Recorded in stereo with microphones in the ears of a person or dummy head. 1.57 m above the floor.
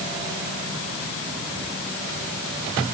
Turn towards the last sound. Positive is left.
No sound to turn to.